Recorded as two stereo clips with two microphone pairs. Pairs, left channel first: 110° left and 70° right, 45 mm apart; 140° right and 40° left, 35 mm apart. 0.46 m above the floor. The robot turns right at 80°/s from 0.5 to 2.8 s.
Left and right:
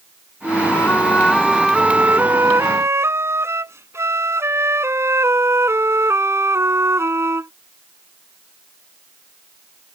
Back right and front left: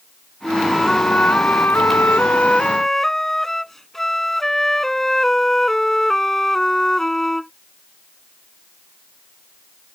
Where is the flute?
115° left; by 7.5 s 60° right.